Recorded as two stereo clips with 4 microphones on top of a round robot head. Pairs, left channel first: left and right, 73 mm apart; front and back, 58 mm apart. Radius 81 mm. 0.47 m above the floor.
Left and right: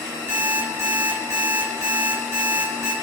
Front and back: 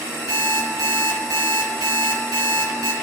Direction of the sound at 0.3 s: 150° right.